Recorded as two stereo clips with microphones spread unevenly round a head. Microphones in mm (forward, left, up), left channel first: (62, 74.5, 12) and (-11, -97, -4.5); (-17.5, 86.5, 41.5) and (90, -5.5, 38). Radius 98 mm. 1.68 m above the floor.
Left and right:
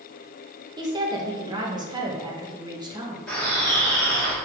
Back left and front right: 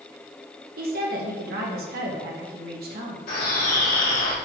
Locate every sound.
0.8 s a woman speaking: 45° right, 2.0 m
3.3 s a bird: 150° left, 3.5 m